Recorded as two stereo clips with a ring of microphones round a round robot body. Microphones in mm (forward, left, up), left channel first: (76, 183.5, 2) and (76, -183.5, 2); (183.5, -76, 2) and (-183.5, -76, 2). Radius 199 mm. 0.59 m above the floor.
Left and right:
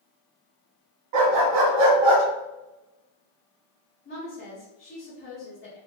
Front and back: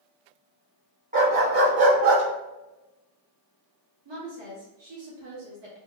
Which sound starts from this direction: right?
A dog barking, at 1.1 s.